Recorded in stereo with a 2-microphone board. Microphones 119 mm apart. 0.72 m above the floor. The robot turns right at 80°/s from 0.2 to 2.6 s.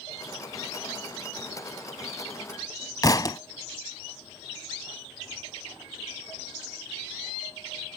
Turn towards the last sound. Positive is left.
turn(degrees=35)  # may be behind; listen again after turning